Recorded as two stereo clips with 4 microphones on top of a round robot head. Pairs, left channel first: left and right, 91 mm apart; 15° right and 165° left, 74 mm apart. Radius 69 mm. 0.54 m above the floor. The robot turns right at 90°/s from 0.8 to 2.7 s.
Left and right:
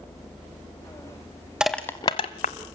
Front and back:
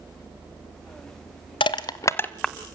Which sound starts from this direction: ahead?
Crushing, at 1.6 s.